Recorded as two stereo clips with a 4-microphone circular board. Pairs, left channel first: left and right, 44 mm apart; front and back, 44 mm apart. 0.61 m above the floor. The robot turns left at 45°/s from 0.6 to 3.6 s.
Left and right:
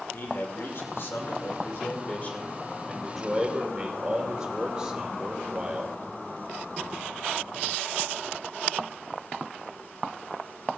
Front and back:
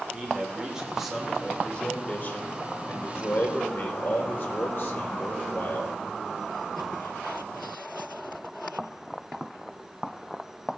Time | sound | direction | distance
0.1 | a man speaking | 115° left | 2.5 m